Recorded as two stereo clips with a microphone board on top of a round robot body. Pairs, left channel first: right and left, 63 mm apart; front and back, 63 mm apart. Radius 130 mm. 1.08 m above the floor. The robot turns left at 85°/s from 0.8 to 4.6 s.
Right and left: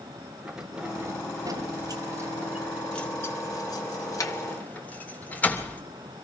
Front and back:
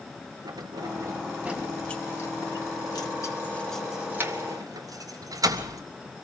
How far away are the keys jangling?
About 3 m.